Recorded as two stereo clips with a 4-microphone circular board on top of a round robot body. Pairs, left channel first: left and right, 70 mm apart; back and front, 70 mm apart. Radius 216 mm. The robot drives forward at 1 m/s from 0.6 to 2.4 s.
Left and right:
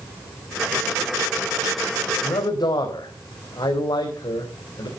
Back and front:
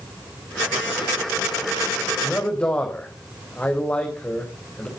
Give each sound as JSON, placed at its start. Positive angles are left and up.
{"t": 2.2, "sound": "a man speaking", "azimuth_deg": 110, "distance_m": 4.0}